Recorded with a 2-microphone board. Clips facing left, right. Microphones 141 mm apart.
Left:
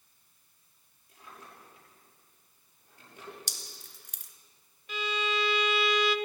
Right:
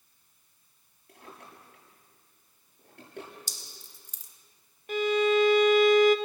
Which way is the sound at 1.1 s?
70° right (ahead or behind).